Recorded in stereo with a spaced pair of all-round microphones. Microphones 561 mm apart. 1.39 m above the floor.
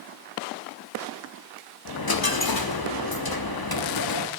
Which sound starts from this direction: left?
A dropped coin, at 1.9 s.